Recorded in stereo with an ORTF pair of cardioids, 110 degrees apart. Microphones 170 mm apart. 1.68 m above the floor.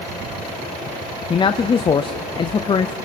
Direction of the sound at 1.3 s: 30° left.